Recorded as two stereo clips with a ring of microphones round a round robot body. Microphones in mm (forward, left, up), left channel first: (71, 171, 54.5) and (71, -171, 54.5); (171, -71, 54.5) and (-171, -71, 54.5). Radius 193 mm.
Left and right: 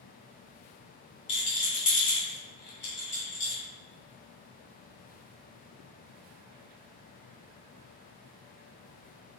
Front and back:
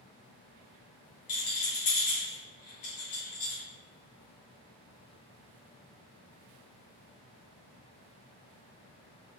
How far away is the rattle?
About 1.6 m.